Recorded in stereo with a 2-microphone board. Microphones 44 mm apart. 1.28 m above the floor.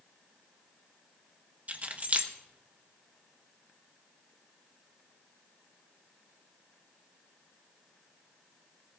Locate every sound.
1.7 s keys jangling: 40° right (ahead or behind), 1.0 m